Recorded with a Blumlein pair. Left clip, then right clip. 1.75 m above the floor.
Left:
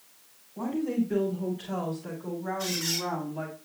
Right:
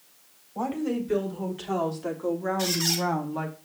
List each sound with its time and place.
0.6 s a woman speaking: 40° right, 4.5 m; by 3.6 s 35° right, 2.5 m
2.6 s a squeak: 50° right, 4 m